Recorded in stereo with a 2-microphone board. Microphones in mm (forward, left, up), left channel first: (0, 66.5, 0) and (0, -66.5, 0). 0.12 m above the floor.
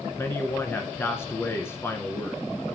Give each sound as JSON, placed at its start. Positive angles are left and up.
{"t": 0.2, "sound": "a man speaking", "side_deg": 20, "distance_m": 1.2}